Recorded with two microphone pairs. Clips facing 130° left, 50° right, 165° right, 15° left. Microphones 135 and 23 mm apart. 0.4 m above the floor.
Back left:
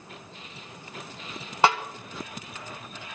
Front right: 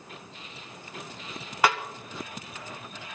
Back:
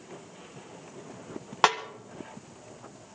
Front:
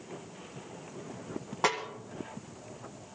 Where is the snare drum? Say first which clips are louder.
Back left 3 dB, back 6 dB; 170° right, 1.4 m.